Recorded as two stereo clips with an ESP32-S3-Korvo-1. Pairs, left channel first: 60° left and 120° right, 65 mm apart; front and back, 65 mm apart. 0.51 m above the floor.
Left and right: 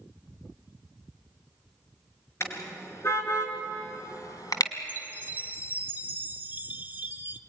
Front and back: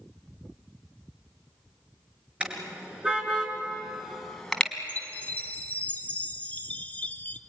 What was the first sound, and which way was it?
A car horn, 110° left.